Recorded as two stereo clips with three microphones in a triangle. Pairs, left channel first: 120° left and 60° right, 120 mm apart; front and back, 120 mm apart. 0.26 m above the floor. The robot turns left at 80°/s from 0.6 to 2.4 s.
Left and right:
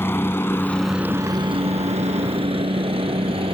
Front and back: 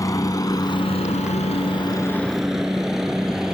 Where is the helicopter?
55° left; by 3.5 s 95° right.